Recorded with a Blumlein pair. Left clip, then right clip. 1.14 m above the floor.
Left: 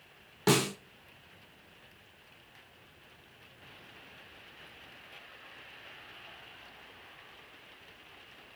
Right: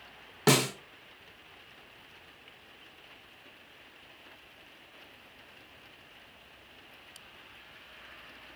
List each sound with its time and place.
0.5 s a snare drum: 15° right, 1.3 m